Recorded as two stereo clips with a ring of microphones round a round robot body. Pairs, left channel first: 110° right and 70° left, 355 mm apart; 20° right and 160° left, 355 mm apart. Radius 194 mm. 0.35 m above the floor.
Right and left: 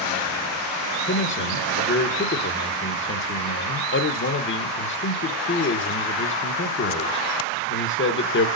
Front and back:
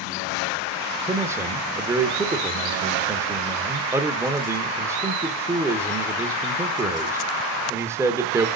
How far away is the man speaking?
About 0.9 m.